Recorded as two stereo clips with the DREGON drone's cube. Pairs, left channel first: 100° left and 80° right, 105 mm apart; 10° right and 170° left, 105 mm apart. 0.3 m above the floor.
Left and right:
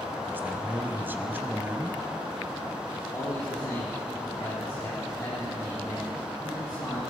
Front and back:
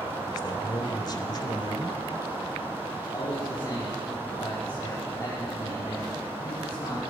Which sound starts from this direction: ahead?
A man speaking, at 0.3 s.